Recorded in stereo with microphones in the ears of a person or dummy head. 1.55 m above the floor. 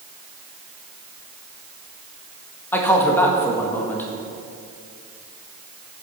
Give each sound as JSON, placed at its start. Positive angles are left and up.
{"t": 2.7, "sound": "a man speaking", "side_deg": 15, "distance_m": 1.7}